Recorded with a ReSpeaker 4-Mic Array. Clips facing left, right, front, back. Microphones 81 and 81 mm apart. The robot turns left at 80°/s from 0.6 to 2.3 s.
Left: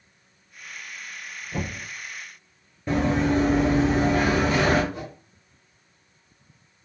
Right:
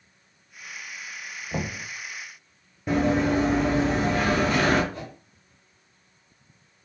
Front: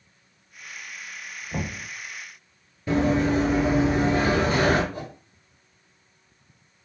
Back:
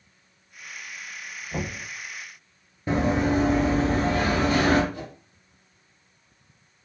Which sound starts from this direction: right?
Knocking, at 1.5 s.